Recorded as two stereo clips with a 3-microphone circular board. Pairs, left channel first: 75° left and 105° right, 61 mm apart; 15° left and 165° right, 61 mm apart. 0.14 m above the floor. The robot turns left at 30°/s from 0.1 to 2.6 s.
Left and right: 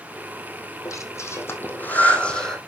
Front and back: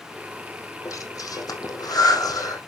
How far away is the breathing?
About 3.5 m.